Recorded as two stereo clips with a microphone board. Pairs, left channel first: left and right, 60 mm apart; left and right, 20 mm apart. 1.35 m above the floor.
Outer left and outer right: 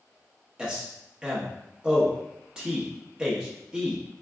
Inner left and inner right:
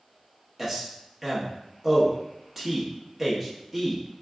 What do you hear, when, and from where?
0.6 s a man speaking: 15° right (ahead or behind), 1.1 m